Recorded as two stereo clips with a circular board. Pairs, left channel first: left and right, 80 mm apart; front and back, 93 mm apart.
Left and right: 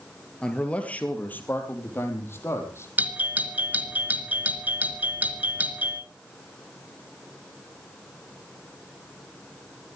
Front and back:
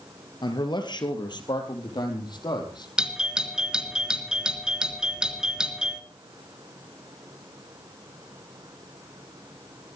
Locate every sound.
0.4 s a man speaking: 15° left, 3 m; by 2.9 s 35° left, 5 m
3.0 s a doorbell: 115° right, 2.5 m